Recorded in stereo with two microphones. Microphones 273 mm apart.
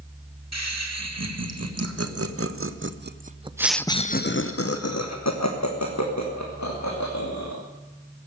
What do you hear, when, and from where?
0.5 s laughter: 70° right (ahead or behind), 2.5 m; by 7.6 s 85° left, 3 m